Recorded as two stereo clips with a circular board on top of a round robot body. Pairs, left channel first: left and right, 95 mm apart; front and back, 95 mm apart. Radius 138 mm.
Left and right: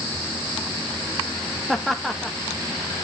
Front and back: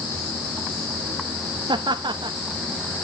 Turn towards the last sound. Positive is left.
turn(degrees=175)